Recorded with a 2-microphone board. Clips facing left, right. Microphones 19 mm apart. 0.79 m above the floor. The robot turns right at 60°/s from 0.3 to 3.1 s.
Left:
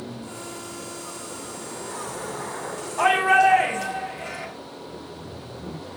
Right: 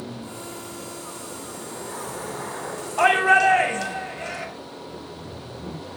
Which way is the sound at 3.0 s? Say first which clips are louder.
Right 1 dB; 40° right (ahead or behind).